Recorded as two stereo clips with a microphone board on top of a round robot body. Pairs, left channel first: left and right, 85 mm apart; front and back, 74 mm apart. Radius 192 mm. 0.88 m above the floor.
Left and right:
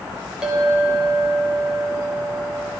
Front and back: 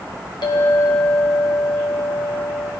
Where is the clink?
10° right, 1.2 m.